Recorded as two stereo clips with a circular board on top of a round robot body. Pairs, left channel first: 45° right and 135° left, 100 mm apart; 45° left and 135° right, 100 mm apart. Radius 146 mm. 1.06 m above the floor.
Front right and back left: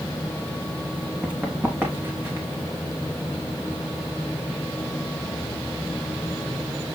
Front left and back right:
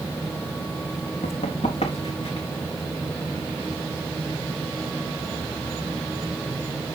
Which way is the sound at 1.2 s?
55° left.